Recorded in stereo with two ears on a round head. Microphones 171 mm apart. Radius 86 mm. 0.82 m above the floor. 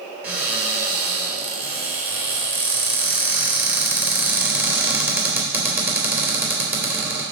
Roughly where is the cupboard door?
Centre.